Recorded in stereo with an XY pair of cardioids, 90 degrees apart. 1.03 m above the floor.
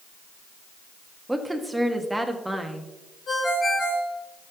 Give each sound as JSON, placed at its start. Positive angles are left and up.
{"t": 1.3, "sound": "a woman speaking", "azimuth_deg": -5, "distance_m": 1.4}
{"t": 3.3, "sound": "a ringtone", "azimuth_deg": 60, "distance_m": 5.0}